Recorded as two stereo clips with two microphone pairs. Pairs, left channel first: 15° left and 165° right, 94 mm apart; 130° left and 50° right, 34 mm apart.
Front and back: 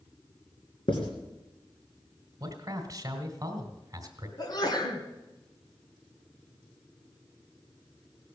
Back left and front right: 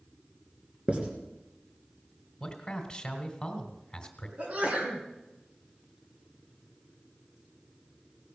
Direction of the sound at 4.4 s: 15° right.